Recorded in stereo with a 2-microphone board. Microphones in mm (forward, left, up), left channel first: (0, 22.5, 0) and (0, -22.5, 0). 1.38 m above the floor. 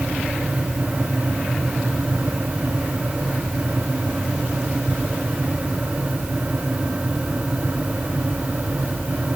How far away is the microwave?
No microwave in this recording.